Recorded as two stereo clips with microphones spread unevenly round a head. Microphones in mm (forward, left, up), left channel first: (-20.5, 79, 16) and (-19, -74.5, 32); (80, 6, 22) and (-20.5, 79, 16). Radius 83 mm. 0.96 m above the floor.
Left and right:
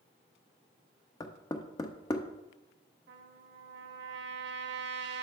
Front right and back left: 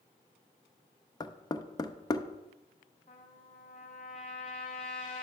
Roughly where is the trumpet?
Right.